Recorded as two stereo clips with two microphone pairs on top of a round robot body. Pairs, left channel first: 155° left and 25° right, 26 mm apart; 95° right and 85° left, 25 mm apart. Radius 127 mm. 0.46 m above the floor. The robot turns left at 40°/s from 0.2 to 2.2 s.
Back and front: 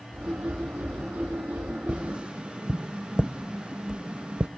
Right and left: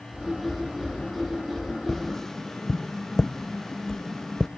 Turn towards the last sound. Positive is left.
turn(degrees=-45)